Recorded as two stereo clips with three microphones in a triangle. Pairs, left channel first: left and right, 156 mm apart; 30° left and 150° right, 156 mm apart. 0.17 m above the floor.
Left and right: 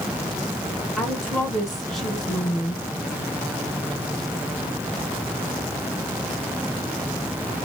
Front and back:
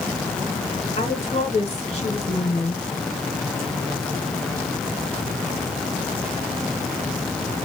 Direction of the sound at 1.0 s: Straight ahead.